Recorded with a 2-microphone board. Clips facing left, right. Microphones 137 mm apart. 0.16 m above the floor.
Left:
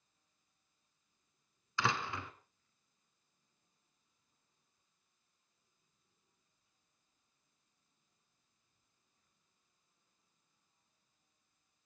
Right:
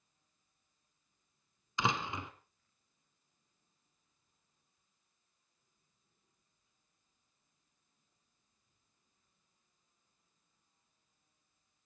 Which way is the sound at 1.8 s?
20° right (ahead or behind).